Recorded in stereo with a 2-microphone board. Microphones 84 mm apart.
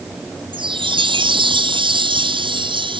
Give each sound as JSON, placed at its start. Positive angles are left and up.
{"t": 0.5, "sound": "a chime", "side_deg": -75}